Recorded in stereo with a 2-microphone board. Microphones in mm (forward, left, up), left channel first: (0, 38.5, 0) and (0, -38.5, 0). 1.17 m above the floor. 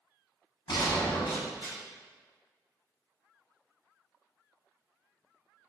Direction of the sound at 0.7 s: 65° left (ahead or behind).